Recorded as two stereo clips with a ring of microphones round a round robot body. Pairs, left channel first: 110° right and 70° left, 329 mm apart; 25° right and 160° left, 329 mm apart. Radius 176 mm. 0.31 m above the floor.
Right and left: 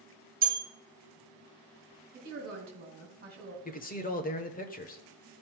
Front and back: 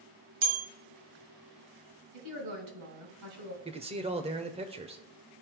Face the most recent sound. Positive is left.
turn(degrees=-150)